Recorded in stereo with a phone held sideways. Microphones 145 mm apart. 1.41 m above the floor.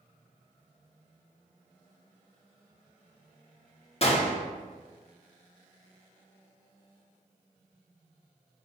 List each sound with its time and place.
4.0 s a gunshot: 45° left (ahead or behind), 0.6 m